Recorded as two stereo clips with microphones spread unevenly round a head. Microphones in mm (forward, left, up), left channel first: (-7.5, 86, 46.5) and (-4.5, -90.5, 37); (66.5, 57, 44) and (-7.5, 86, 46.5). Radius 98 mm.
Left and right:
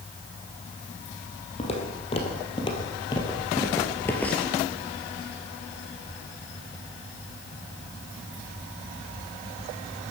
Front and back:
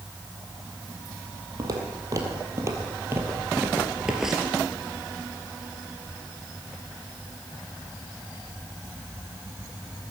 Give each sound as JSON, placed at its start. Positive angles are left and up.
{"t": 1.6, "sound": "footsteps", "azimuth_deg": 135, "distance_m": 2.5}